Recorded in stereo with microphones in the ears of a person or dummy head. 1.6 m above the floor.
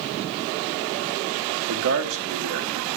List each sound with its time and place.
1.7 s a man speaking: 70° right (ahead or behind), 1.4 m